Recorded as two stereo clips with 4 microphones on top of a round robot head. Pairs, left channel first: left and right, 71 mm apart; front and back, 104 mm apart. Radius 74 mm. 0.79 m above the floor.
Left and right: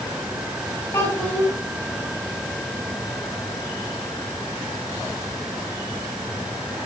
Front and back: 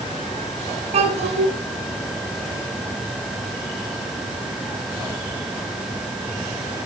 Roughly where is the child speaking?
Behind left.